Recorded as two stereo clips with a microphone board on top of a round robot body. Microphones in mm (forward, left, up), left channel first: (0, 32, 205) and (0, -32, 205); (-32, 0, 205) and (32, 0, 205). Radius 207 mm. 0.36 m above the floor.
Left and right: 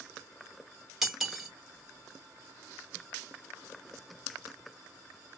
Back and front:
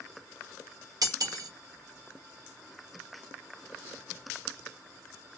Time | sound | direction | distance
1.0 | cutlery clinking | 5° right | 1.1 m